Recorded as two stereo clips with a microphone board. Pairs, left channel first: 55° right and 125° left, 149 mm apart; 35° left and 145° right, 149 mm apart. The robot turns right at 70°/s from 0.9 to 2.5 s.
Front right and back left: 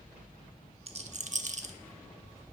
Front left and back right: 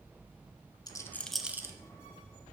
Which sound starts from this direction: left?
A rattle, at 0.9 s.